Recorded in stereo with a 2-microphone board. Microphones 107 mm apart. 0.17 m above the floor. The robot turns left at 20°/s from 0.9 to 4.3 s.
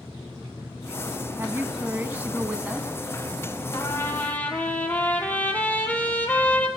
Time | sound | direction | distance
1.4 | a woman speaking | 25° right (ahead or behind) | 1.1 m
3.7 | a trumpet | 25° left (ahead or behind) | 1.6 m